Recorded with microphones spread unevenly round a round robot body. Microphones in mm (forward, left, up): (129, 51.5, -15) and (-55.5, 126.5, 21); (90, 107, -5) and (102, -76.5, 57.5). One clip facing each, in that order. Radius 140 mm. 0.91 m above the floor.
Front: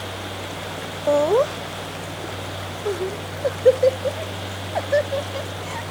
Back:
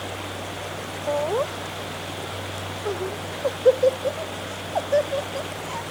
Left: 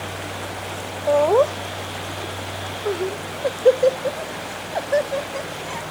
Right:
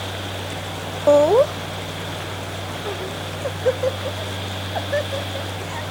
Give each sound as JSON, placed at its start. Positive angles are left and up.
{"t": 1.1, "sound": "laughter", "azimuth_deg": -45}